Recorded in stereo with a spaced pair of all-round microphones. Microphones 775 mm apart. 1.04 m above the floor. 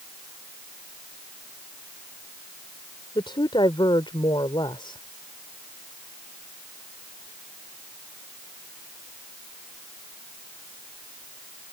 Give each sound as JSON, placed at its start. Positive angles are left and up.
{"t": 3.1, "sound": "a woman speaking", "side_deg": 5}